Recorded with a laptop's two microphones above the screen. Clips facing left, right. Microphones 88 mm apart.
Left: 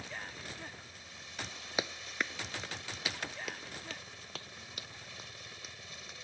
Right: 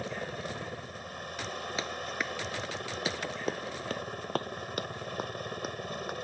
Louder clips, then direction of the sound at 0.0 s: Right 9 dB; 55° right (ahead or behind).